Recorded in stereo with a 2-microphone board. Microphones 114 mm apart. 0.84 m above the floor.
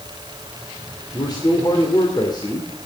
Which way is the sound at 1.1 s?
40° left (ahead or behind).